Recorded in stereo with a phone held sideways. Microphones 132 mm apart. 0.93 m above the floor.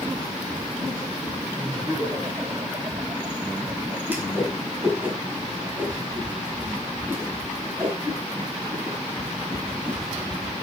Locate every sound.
1.6 s laughter: 25° right (ahead or behind), 6 m; by 4.0 s 35° right (ahead or behind), 7 m
4.1 s a whoosh: 15° right (ahead or behind), 5.5 m